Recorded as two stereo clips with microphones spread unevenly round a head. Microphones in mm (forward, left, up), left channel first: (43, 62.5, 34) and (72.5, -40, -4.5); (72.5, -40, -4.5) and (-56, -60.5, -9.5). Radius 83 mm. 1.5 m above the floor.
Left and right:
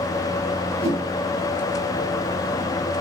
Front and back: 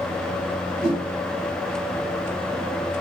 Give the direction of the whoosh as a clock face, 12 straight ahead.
9 o'clock.